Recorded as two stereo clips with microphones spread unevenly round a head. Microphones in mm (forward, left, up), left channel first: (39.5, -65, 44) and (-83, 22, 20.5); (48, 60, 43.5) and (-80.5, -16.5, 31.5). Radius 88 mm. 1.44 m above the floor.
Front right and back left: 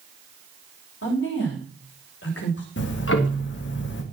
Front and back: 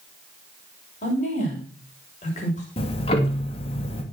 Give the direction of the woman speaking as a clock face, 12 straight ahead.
1 o'clock.